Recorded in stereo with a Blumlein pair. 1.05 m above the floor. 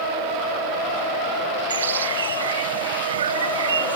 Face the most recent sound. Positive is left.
turn(degrees=-70)